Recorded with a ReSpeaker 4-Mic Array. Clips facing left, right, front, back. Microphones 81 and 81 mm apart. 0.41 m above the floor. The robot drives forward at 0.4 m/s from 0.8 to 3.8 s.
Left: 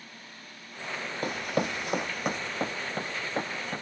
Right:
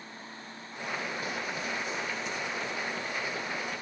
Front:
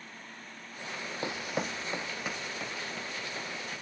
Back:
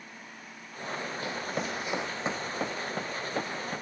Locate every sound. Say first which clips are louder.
1.2 s running footsteps: left 5 dB, front 1 dB; 60° left; by 3.8 s 140° left